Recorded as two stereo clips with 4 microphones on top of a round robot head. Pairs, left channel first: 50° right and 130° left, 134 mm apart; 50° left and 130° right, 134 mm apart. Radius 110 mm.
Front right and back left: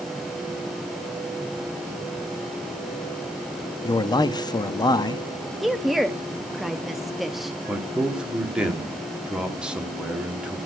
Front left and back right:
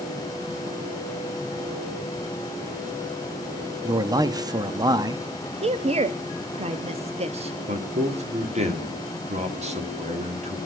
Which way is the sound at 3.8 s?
90° right.